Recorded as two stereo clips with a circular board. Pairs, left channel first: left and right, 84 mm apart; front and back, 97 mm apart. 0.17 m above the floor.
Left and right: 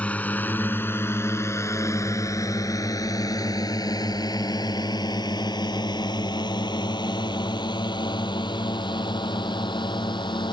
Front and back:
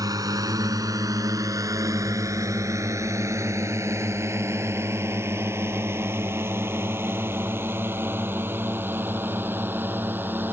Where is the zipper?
I don't hear a zipper.